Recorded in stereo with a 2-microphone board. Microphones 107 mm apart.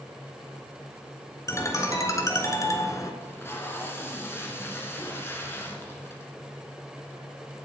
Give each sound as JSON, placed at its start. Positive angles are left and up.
{"t": 1.5, "sound": "a ringtone", "side_deg": 30, "distance_m": 1.5}
{"t": 3.2, "sound": "tape being pulled", "side_deg": 25, "distance_m": 2.0}